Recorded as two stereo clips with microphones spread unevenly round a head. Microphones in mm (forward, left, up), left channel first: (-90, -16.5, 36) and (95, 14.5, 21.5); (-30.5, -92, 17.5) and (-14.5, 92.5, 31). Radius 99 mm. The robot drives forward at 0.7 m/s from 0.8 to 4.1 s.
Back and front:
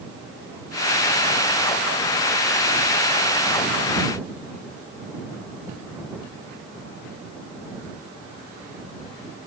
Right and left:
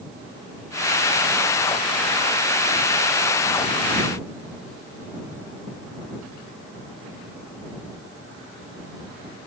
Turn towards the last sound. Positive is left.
No sound to turn to.